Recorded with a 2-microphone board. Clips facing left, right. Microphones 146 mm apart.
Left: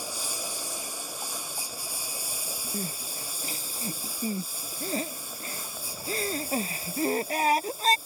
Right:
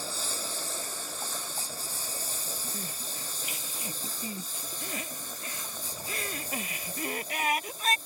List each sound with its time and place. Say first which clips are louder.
0.0 s a lawn mower: left 1 dB; 10° left (ahead or behind)
2.7 s crying: left 5 dB; 35° left (ahead or behind)